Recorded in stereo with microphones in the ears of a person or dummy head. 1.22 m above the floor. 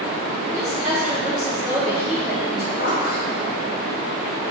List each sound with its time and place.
0.5 s a woman speaking: centre (ahead or behind), 3 m
2.7 s a zipper: 45° left (ahead or behind), 1.5 m